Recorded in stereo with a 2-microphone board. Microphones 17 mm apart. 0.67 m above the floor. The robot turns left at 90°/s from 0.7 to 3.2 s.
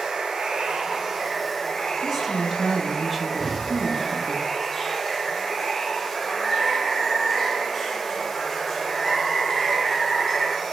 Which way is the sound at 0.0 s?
115° right.